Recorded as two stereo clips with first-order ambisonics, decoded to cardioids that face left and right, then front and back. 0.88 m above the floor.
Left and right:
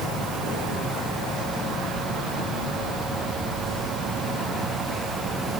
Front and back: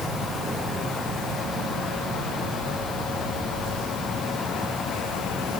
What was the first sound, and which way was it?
Only background noise.